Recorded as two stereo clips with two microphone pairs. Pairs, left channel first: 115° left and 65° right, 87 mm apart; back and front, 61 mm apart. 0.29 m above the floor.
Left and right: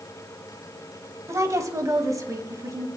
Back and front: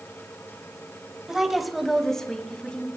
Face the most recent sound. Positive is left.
turn(degrees=-105)